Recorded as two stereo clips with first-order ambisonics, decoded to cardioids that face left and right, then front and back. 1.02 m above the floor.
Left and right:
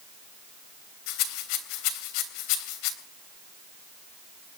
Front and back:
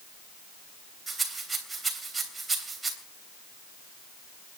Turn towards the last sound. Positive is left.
turn(degrees=100)